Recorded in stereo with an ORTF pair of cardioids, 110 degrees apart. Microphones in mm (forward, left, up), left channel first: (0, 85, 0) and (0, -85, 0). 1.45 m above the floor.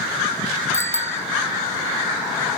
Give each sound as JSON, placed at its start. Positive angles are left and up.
{"t": 0.7, "sound": "a bicycle bell", "azimuth_deg": 15}